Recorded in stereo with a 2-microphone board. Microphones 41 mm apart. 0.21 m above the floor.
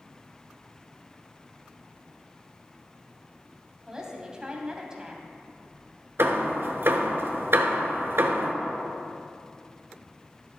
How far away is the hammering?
About 0.9 m.